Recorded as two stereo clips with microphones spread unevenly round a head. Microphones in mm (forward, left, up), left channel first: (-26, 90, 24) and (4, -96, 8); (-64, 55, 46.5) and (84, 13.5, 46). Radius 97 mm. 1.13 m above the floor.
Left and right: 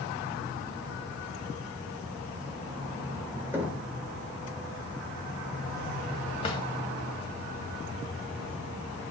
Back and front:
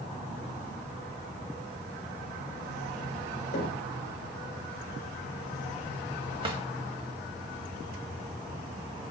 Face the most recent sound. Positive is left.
turn(degrees=40)